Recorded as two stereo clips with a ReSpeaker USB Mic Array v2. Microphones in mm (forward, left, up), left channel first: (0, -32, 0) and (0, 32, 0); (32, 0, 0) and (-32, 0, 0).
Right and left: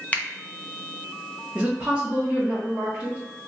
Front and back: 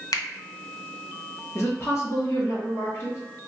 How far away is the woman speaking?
About 0.9 m.